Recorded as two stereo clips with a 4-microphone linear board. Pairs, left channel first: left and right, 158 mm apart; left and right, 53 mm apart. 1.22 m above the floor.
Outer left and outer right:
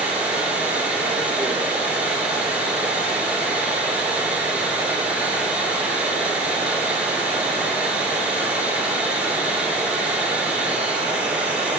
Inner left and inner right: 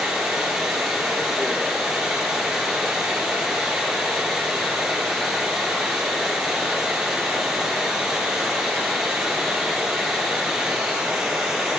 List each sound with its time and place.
0.0 s running water: 10° right (ahead or behind), 3 m